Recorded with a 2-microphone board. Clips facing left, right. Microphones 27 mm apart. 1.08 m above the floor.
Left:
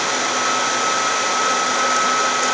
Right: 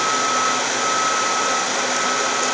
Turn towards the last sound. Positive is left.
No sound to turn to.